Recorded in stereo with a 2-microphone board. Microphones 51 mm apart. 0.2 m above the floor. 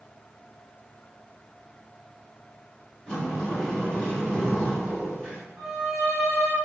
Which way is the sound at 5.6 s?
5° left (ahead or behind).